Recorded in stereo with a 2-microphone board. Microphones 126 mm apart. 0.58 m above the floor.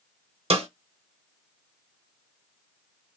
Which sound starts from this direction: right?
A snare drum, at 0.5 s.